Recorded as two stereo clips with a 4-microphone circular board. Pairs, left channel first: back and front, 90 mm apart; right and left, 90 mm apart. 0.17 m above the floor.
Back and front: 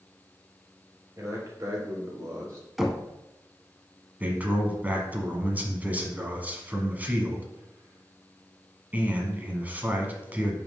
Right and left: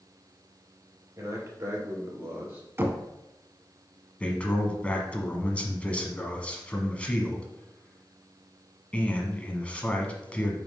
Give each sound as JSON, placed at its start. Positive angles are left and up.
{"t": 1.2, "sound": "a man speaking", "azimuth_deg": 50, "distance_m": 3.5}
{"t": 2.8, "sound": "knocking", "azimuth_deg": 85, "distance_m": 0.8}
{"t": 4.2, "sound": "a man speaking", "azimuth_deg": -40, "distance_m": 1.1}